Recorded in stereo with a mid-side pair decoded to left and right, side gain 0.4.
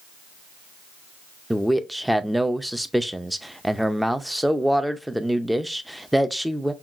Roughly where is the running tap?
No running tap in this recording.